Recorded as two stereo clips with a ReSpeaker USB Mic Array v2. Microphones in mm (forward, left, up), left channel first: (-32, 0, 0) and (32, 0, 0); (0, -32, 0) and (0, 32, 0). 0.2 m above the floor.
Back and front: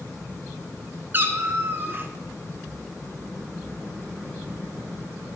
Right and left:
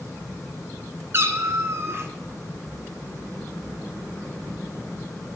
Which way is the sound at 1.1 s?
50° left.